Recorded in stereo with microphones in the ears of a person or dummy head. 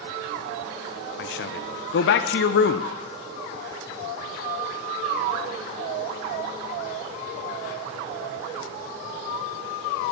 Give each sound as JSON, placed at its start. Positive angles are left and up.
{"t": 1.2, "sound": "a man speaking", "side_deg": 60, "distance_m": 0.6}